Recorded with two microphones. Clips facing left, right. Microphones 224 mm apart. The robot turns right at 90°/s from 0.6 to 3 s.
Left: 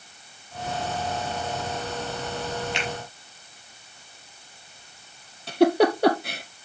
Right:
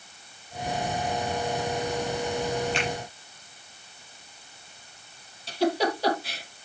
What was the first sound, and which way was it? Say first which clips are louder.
A finger snap: right 2 dB; 30° right (ahead or behind).